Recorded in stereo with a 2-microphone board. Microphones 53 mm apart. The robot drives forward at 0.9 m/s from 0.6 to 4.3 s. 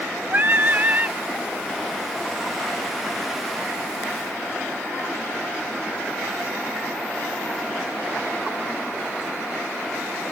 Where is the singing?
40° right (ahead or behind); by 1.2 s 35° right (ahead or behind).